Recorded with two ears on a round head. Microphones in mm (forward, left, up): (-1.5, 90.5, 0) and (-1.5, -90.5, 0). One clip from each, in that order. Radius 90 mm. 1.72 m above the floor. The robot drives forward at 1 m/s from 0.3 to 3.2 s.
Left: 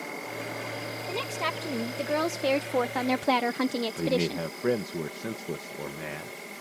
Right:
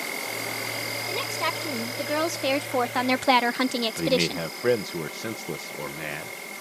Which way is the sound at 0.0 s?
75° right (ahead or behind).